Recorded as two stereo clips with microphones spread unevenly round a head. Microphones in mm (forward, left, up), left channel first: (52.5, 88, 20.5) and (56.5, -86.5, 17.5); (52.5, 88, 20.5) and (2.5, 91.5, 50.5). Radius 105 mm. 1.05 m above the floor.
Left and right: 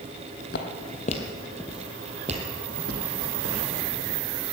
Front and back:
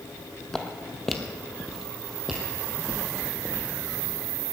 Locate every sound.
0.5 s footsteps: 100° left, 1.7 m; by 4.2 s 115° right, 3.5 m